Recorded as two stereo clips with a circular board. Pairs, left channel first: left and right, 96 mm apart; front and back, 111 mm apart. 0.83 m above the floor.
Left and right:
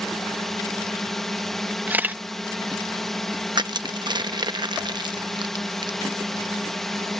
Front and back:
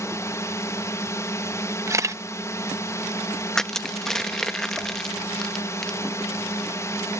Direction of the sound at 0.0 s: 5° left.